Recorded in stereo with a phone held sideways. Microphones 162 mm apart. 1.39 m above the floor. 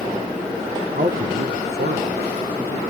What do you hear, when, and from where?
0.9 s a man speaking: 50° right (ahead or behind), 0.6 m; by 2.8 s 60° right (ahead or behind), 1.5 m